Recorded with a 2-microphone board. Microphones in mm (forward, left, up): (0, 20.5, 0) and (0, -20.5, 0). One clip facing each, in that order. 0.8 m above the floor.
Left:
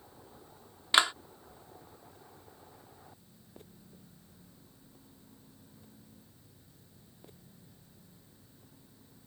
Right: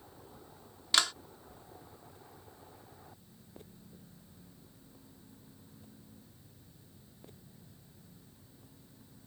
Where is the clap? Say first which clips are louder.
Left 4 dB; 25° left (ahead or behind).